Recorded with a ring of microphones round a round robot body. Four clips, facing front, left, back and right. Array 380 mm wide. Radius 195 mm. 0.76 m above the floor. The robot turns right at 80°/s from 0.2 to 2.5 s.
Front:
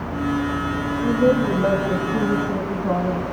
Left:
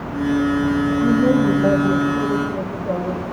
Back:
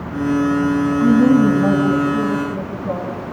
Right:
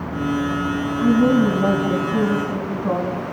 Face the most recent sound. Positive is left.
turn(degrees=-40)